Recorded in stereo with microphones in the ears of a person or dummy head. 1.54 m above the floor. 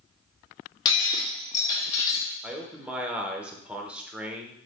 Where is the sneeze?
No sneeze in this recording.